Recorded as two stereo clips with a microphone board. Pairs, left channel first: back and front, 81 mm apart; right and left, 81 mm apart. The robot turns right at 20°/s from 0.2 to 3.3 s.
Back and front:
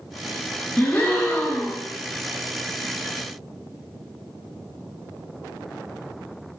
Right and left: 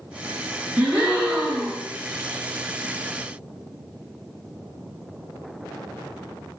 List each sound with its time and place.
0.8 s a gasp: 140° left, 0.9 m; by 1.9 s 160° left, 0.9 m